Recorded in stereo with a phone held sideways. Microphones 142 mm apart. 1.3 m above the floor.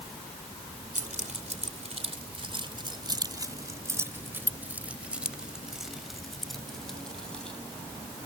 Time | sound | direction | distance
0.9 | keys jangling | 65° right (ahead or behind) | ?